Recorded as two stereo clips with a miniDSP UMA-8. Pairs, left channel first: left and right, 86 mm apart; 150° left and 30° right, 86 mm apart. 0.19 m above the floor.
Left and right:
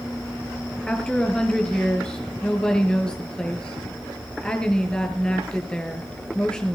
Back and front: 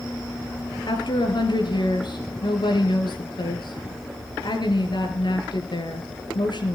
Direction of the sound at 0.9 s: 170° left.